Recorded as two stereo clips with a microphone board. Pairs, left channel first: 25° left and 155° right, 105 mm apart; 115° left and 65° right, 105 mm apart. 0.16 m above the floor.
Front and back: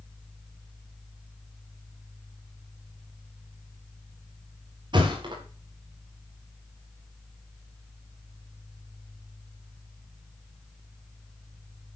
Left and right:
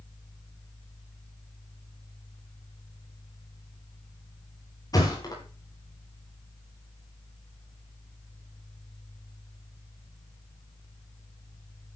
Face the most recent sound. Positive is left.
turn(degrees=165)